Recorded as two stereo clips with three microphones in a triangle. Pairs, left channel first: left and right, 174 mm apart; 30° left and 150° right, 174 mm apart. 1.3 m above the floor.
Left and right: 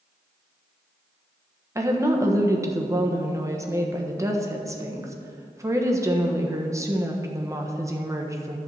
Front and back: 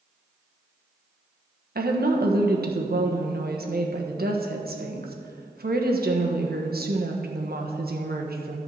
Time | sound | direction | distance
1.8 | a woman speaking | 160° right | 1.3 m